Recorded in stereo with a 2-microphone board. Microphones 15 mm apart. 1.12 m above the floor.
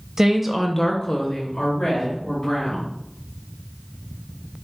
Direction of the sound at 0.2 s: 25° right (ahead or behind).